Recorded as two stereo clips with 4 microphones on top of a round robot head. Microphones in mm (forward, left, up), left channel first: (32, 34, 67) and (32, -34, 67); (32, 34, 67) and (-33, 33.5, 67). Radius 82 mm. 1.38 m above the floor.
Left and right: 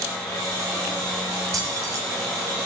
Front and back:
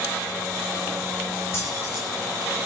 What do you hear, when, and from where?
1.5 s keys jangling: 60° right, 4.5 m